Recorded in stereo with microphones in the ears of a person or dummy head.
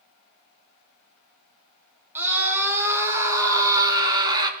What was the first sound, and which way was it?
A scream, 15° right (ahead or behind).